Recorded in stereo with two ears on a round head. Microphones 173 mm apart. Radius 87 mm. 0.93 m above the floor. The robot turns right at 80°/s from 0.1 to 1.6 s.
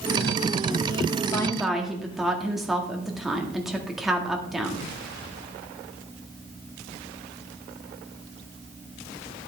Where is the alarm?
No alarm in this recording.